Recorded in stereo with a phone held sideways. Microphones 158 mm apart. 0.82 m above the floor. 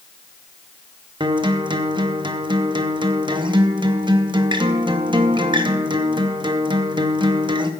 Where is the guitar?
30° right (ahead or behind), 0.8 m.